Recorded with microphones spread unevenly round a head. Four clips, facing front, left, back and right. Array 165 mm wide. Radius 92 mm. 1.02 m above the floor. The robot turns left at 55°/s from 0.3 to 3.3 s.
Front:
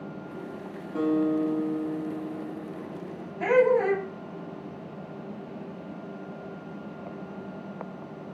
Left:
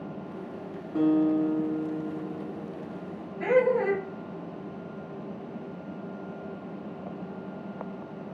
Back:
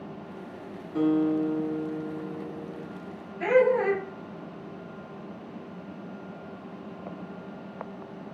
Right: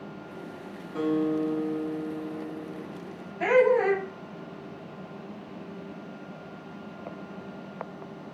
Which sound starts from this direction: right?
Laughter, at 3.4 s.